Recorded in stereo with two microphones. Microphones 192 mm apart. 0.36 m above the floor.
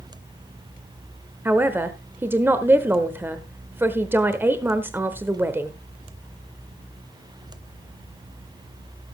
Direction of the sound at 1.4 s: 10° right (ahead or behind).